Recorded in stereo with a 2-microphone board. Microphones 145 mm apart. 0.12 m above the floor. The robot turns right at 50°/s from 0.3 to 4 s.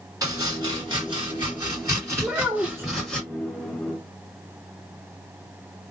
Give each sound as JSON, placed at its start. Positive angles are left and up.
{"t": 0.2, "sound": "chopping", "side_deg": -25, "distance_m": 1.8}
{"t": 2.2, "sound": "a child speaking", "side_deg": -5, "distance_m": 1.2}